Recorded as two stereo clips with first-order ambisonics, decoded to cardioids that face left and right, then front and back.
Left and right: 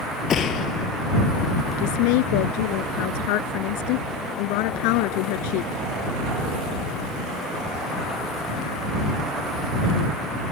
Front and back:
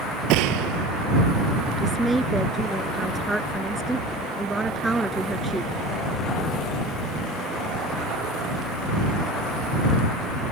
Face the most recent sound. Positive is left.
turn(degrees=95)